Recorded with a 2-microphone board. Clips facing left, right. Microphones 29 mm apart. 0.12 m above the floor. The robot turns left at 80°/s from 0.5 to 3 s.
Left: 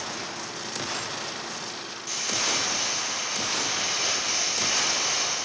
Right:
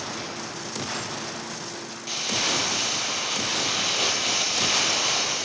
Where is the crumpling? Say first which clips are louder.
Right 2 dB; 25° right, 1.9 m; by 5.5 s 100° right, 1.9 m.